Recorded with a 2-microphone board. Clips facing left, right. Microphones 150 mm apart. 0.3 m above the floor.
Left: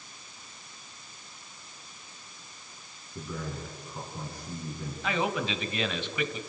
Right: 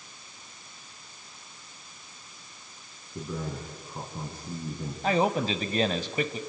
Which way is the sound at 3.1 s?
30° right (ahead or behind).